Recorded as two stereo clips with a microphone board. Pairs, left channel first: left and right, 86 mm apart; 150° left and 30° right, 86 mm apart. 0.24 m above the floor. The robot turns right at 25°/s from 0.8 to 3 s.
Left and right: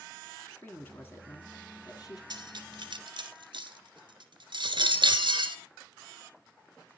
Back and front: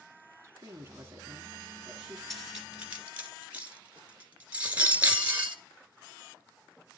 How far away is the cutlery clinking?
About 2 m.